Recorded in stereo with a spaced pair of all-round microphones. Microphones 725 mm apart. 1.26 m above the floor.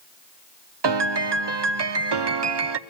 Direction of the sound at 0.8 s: 40° right (ahead or behind).